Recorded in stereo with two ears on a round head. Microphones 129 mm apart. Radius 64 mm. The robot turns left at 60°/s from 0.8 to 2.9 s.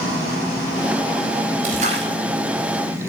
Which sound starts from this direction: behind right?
A splash, at 1.6 s.